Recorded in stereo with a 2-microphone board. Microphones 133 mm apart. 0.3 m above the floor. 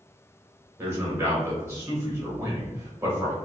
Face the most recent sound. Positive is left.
turn(degrees=-20)  # may be behind; listen again after turning